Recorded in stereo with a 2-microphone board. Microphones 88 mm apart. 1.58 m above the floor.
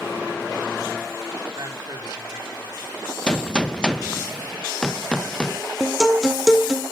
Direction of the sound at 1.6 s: 50° right (ahead or behind).